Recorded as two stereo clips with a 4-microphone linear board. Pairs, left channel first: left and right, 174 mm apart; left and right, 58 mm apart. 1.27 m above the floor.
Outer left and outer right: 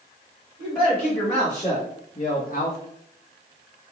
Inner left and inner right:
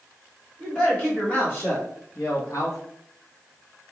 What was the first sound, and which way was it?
A man speaking, 15° left (ahead or behind).